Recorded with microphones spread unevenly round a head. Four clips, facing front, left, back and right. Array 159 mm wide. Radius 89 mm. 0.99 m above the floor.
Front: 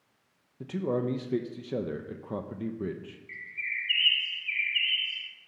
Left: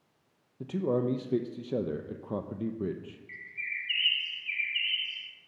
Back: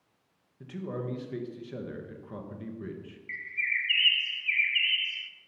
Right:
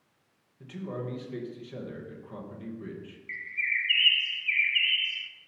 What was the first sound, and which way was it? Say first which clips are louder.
A man speaking: left 8 dB, front 7 dB; 50° left.